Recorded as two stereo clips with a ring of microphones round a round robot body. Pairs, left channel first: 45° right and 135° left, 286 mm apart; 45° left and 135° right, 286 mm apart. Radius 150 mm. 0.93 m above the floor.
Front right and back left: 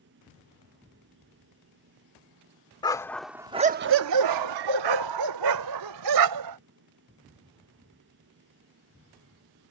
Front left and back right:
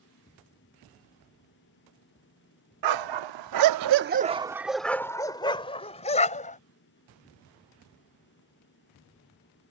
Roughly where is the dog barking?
Behind right.